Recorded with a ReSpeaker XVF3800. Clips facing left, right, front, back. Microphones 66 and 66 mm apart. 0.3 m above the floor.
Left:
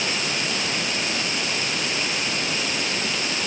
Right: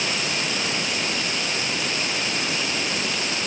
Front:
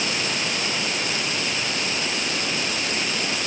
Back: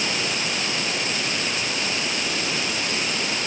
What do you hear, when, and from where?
Only background noise.